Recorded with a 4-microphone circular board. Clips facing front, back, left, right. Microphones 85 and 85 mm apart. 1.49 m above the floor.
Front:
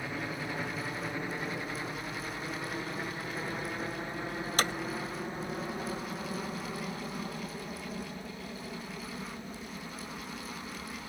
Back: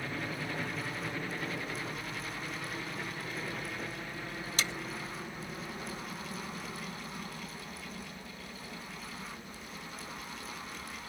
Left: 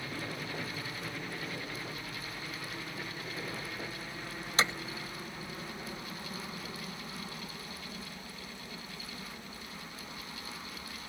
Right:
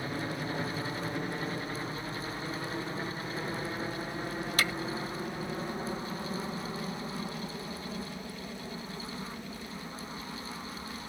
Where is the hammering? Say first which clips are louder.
Front 7 dB, left 2 dB; 30° left.